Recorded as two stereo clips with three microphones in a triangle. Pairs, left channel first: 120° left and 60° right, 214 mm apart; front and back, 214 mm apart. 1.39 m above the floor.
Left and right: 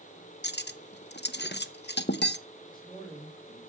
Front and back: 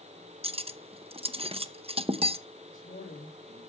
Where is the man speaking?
50° left, 3.5 m.